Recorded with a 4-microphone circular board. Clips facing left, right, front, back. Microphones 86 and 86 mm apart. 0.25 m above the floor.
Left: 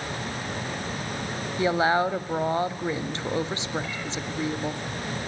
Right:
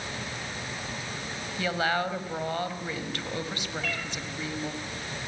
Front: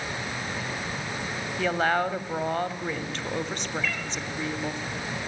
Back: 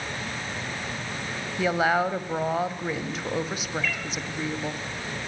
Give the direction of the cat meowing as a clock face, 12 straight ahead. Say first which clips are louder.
Even, even; 3 o'clock.